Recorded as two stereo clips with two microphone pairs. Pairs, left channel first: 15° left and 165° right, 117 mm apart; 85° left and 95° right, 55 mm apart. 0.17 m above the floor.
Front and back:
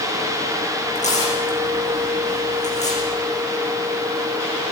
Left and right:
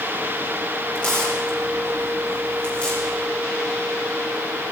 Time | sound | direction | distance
0.9 | tearing paper | 15° left | 9 m